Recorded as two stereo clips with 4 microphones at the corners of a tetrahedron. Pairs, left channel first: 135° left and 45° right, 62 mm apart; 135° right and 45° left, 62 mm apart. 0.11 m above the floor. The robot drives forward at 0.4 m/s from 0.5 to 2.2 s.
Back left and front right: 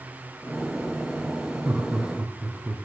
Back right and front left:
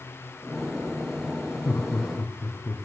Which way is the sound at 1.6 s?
95° right.